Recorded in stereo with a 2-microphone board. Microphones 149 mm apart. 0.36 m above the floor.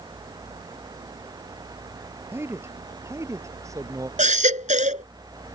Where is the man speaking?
15° right (ahead or behind); by 4.1 s 20° right (ahead or behind).